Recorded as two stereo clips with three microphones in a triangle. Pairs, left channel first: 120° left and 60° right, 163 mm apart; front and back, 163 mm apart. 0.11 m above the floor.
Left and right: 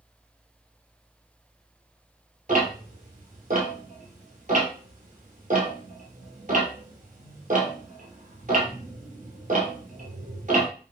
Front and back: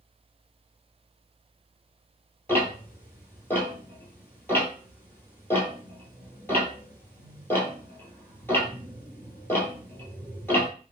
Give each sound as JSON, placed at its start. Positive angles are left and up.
{"t": 2.5, "sound": "ticking", "azimuth_deg": -75, "distance_m": 1.4}